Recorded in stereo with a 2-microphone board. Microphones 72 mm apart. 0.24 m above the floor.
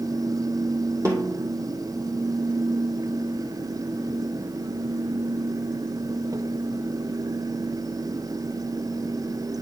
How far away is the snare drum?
About 2.5 m.